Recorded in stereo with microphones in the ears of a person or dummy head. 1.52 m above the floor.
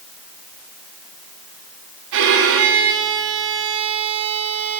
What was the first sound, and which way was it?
A violin, 70° right (ahead or behind).